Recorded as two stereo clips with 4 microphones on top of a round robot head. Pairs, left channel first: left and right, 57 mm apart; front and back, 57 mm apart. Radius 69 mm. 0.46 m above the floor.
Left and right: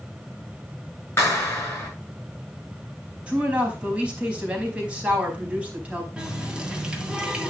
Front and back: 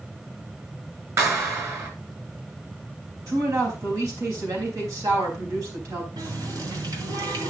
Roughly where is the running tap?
Behind.